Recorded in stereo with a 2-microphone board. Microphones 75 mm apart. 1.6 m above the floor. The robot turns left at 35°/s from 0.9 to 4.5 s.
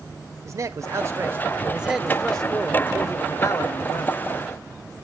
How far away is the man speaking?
About 0.9 m.